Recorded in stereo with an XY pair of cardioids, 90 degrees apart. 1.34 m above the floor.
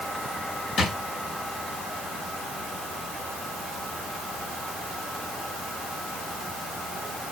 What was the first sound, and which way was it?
A drawer, 60° left.